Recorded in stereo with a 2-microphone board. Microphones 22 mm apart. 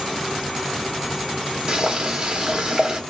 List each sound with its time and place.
1.7 s boiling: 40° right (ahead or behind), 0.8 m